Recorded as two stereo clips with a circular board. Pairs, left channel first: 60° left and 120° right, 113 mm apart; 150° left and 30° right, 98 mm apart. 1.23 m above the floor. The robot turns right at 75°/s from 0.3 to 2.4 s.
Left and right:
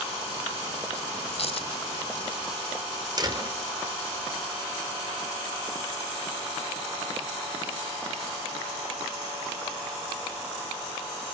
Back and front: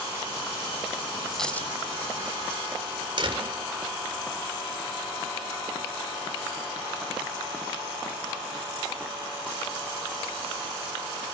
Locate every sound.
1.3 s a dropped coin: 60° left, 2 m; by 1.7 s 90° left, 2 m
3.2 s a door slam: 65° right, 3 m